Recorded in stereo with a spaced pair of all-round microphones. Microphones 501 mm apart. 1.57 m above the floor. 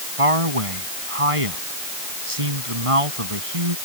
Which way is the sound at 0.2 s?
90° right.